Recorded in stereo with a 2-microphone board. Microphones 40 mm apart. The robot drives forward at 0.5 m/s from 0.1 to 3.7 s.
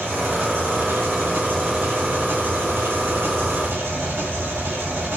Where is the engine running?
65° right (ahead or behind), 6.5 m; by 5.2 s 80° right, 6 m.